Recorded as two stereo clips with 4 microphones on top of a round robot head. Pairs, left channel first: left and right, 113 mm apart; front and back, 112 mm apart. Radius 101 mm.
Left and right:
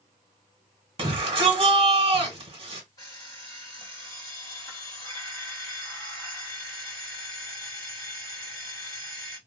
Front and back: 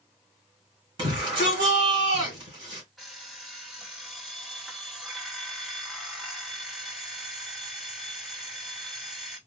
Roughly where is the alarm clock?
Left.